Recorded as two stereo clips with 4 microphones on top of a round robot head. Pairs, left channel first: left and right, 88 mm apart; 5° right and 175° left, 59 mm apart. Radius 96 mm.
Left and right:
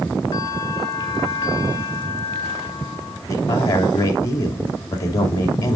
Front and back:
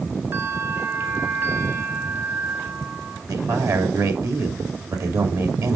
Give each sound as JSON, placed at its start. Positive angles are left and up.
{"t": 0.3, "sound": "a bell", "azimuth_deg": 135, "distance_m": 3.5}
{"t": 3.3, "sound": "a man speaking", "azimuth_deg": 145, "distance_m": 2.5}